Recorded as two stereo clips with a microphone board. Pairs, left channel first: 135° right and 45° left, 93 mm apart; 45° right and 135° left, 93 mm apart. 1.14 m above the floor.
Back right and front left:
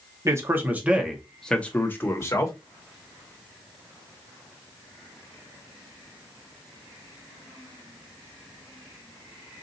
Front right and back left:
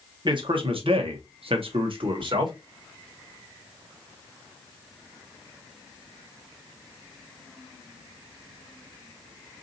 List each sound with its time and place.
0.2 s a man speaking: 100° left, 1.1 m; by 2.5 s 170° left, 1.3 m